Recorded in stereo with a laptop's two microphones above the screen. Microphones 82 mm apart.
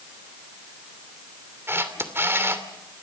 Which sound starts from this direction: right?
A camera shutter, at 1.7 s.